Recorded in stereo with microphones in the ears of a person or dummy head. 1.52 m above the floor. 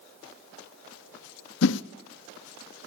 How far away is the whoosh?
About 0.6 m.